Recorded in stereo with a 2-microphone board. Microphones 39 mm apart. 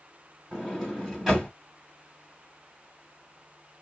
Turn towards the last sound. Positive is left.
turn(degrees=-10)  # may be behind; listen again after turning